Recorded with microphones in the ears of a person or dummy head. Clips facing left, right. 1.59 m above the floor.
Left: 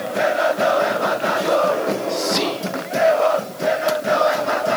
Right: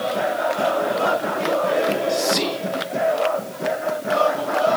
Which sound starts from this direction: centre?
Whispering, at 2.1 s.